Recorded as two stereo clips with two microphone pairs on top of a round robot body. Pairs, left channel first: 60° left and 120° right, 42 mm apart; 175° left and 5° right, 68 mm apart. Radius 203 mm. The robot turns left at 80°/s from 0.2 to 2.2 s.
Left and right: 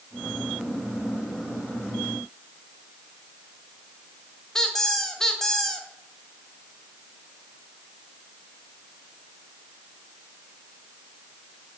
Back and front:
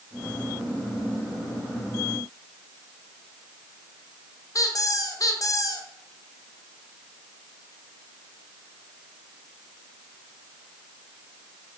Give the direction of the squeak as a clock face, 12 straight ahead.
7 o'clock.